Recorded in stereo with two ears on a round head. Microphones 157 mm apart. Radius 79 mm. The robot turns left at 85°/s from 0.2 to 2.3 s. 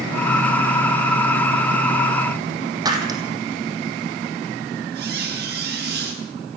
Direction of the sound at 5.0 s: 60° right (ahead or behind).